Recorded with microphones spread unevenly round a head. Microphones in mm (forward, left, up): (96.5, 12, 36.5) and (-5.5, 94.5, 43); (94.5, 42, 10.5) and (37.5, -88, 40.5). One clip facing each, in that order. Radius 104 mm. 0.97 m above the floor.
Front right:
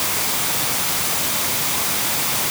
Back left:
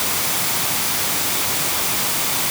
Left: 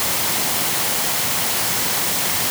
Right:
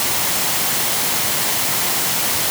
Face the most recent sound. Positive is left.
No sound to turn to.